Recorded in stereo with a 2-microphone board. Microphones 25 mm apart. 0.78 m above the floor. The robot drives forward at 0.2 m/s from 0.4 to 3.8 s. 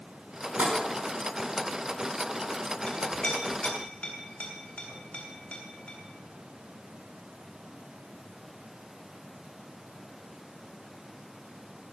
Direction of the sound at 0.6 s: 55° right (ahead or behind).